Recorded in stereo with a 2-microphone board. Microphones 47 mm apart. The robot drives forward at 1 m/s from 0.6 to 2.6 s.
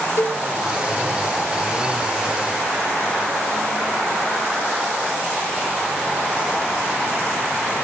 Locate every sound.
0.2 s a cowbell: 55° left (ahead or behind), 1.9 m